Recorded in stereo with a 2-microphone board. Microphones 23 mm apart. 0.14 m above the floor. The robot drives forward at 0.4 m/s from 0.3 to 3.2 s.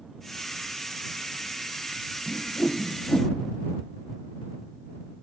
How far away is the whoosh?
About 0.9 m.